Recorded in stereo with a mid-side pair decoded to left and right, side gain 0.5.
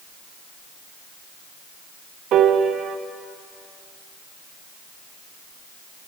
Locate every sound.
2.3 s a piano: 60° right, 0.9 m